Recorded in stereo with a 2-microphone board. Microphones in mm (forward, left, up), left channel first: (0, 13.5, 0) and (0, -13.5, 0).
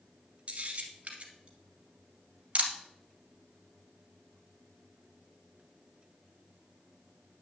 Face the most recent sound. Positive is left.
turn(degrees=-45)  # may be behind; listen again after turning